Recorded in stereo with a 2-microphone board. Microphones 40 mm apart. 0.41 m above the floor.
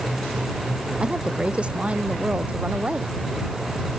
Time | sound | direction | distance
1.0 | a woman speaking | 30° right (ahead or behind) | ?